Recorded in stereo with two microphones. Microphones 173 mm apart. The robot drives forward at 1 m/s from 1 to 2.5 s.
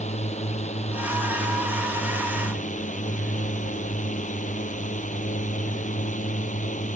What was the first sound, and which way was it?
A drone, 40° left (ahead or behind).